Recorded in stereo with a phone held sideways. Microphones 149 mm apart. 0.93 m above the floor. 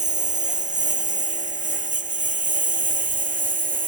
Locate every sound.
0.0 s a lawn mower: 55° right (ahead or behind); by 3.9 s 60° right (ahead or behind)